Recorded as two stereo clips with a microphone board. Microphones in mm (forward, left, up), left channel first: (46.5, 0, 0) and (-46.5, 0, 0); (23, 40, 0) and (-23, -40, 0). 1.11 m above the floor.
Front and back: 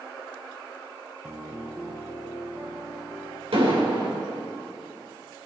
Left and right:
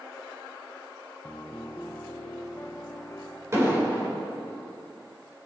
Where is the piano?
115° left, 1.1 m.